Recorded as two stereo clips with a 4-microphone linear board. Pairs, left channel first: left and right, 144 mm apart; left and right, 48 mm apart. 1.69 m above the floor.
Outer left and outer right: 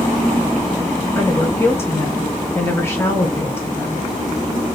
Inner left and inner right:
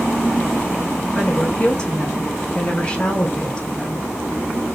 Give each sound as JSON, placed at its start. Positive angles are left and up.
{"t": 1.1, "sound": "a woman speaking", "side_deg": 15, "distance_m": 2.0}